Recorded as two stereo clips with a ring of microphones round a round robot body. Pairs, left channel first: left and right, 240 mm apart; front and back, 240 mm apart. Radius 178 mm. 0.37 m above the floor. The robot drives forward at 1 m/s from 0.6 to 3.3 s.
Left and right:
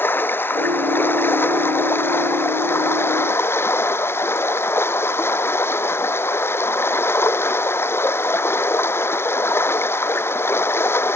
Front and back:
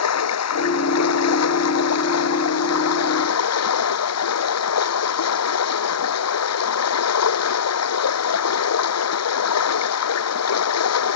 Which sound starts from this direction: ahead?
Running water, at 0.0 s.